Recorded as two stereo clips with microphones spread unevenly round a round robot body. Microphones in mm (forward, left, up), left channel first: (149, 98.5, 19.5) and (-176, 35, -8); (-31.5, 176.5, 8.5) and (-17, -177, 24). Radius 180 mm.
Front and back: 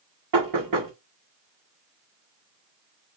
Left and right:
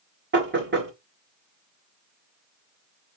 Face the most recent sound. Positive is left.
turn(degrees=-145)